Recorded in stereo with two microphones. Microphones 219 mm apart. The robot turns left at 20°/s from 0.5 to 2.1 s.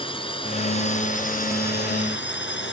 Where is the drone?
155° left; by 2.7 s 125° left.